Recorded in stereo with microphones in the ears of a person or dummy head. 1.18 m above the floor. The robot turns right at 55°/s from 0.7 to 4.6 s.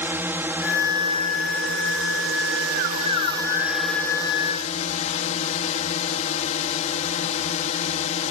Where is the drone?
170° right; by 8.3 s 45° left.